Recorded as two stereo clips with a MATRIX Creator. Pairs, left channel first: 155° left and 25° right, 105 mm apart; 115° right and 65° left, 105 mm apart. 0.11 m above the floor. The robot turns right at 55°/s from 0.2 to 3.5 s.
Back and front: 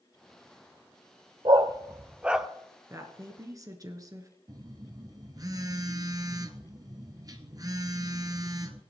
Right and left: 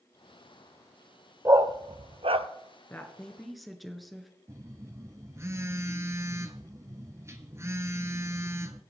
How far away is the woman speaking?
About 1.4 m.